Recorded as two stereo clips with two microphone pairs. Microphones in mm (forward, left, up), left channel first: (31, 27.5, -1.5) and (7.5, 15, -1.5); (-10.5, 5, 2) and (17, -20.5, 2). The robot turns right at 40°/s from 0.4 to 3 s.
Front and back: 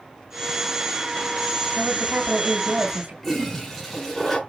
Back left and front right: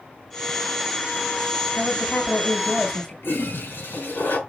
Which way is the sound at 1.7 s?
150° left.